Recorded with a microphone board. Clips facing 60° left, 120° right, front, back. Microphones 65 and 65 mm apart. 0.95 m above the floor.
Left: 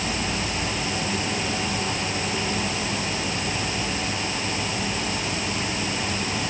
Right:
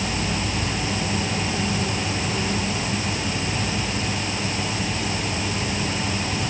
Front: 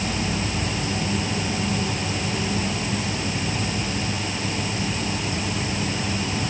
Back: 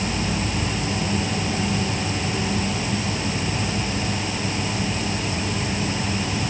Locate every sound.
Only background noise.